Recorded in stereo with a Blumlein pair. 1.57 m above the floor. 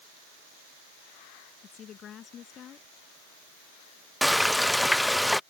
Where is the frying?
5° left.